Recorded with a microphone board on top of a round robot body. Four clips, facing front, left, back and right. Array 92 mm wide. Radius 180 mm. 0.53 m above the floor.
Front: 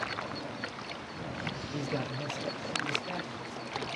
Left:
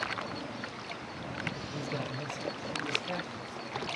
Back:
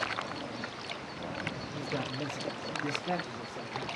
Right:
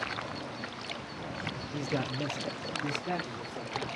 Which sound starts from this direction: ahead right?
A man speaking, at 1.7 s.